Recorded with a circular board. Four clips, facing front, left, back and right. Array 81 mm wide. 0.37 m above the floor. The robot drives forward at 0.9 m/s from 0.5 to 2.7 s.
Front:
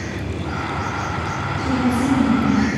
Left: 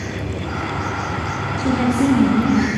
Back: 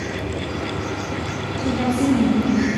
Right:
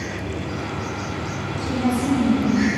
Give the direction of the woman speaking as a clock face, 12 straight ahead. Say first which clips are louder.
Left 5 dB, front 1 dB; 8 o'clock.